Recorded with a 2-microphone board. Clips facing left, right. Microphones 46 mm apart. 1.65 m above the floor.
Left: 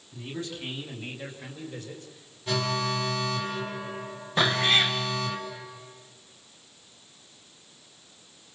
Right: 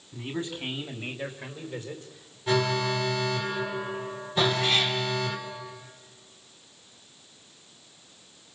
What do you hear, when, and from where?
0.1 s a man speaking: 20° right (ahead or behind), 4.5 m; by 2.4 s 5° right (ahead or behind), 3 m
2.5 s an alarm: 10° right (ahead or behind), 4 m
4.4 s a cat meowing: 40° left (ahead or behind), 2.5 m